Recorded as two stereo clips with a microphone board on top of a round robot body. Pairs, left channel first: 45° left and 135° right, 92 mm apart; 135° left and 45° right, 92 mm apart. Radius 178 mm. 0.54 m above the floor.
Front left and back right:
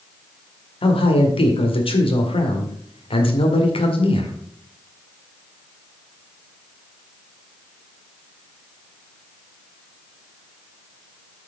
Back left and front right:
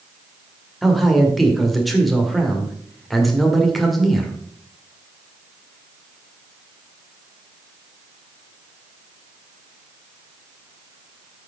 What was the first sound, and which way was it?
A man speaking, 45° left.